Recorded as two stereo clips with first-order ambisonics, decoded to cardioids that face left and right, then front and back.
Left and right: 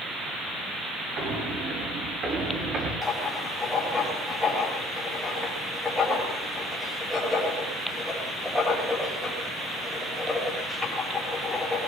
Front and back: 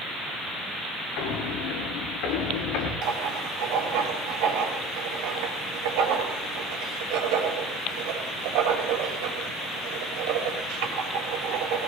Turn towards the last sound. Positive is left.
turn(degrees=170)